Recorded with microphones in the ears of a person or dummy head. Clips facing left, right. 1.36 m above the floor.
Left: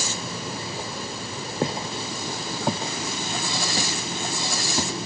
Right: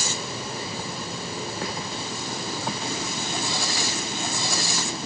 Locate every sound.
1.6 s footsteps: 25° left (ahead or behind); by 5.0 s 30° left (ahead or behind)